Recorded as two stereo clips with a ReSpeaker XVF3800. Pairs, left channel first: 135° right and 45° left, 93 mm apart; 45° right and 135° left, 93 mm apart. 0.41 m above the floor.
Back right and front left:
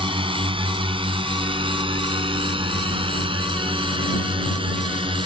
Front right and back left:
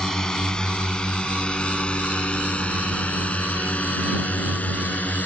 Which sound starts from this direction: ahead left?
A drone, at 0.0 s.